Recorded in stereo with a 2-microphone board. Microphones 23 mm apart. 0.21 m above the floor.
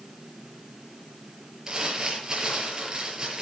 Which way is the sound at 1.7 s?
25° right (ahead or behind).